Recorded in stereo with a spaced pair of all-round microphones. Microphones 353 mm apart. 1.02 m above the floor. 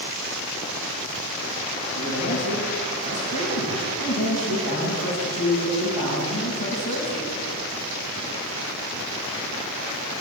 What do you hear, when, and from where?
1.9 s a man speaking: 85° left, 6 m